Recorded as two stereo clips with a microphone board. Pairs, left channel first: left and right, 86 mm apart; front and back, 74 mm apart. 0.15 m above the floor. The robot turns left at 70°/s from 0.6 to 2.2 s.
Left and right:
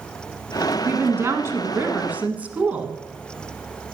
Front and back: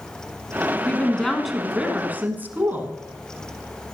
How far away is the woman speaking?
About 1.2 m.